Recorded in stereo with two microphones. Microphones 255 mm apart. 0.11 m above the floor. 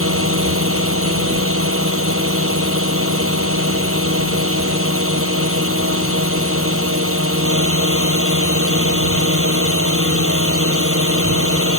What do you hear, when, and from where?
0.0 s a drone: 60° right (ahead or behind)